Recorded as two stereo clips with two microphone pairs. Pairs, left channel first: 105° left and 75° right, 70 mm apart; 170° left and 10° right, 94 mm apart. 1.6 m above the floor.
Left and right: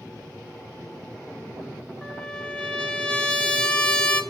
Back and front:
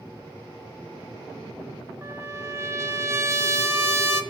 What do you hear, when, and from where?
2.0 s a trumpet: 35° left, 1.1 m